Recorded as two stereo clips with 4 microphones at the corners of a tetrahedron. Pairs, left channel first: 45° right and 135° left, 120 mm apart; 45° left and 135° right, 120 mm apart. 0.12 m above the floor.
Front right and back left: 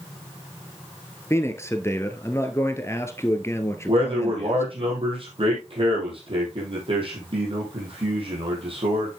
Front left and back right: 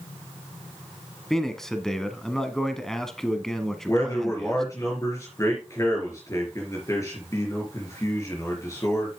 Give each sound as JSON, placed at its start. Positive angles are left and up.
{"t": 1.3, "sound": "a man speaking", "azimuth_deg": -35, "distance_m": 1.1}
{"t": 3.9, "sound": "a man speaking", "azimuth_deg": 105, "distance_m": 3.5}